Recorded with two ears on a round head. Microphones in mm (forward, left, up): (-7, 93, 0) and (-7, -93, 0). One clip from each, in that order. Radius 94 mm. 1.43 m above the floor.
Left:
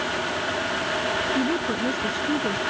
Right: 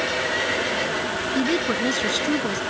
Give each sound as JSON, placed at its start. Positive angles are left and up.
{"t": 1.4, "sound": "a woman speaking", "side_deg": -85}